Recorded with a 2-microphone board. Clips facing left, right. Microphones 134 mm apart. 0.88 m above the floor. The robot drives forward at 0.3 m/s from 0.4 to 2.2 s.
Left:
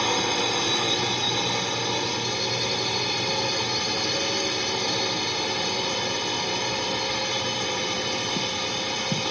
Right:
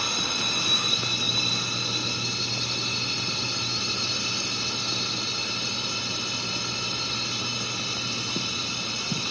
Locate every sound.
0.0 s a drone: 65° left (ahead or behind)